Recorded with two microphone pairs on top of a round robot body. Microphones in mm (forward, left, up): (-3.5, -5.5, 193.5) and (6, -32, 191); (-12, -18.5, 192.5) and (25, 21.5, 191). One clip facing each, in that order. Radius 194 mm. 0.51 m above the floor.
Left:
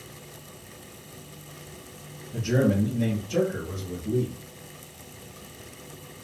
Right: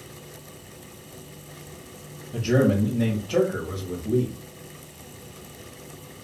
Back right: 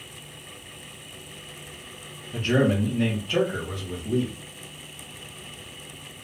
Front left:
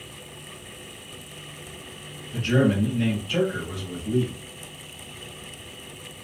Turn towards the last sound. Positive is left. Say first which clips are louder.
# right 3 dB, front left 1 dB
turn(degrees=-75)